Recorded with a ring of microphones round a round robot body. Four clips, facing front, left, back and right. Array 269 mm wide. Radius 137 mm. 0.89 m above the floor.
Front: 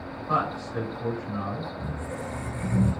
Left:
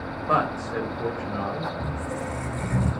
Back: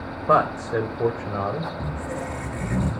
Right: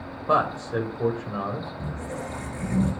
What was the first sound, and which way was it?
A man speaking, 165° right.